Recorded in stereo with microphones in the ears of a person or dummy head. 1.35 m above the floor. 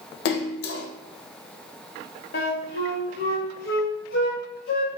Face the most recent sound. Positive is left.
turn(degrees=55)  # may be behind; listen again after turning